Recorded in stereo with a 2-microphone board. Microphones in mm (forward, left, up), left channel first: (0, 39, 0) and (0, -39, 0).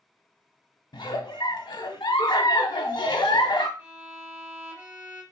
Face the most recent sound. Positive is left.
turn(degrees=-20)  # may be behind; listen again after turning